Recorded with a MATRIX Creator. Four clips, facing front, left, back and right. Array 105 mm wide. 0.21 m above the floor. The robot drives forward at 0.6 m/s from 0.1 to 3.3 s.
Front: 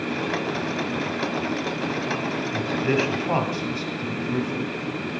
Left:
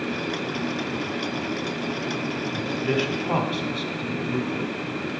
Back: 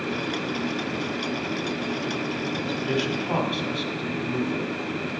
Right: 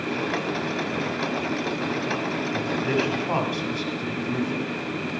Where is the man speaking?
20° right, 1.4 m; by 4.7 s 35° right, 1.2 m.